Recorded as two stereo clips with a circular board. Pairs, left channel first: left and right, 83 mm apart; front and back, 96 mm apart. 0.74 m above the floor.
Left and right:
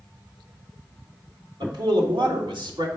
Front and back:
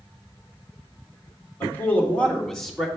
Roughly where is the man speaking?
Ahead right.